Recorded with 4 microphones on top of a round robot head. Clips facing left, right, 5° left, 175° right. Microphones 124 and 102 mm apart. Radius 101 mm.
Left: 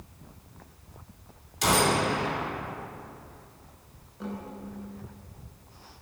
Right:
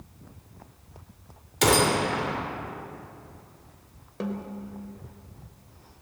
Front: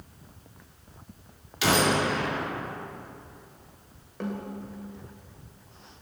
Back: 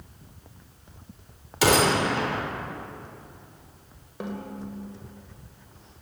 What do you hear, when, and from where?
1.6 s a gunshot: 120° right, 4 m
4.2 s a snare drum: 90° right, 3 m